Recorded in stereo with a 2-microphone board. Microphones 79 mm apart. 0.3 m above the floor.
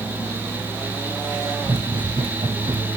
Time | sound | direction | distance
1.6 | running footsteps | 50° right (ahead or behind) | 1.2 m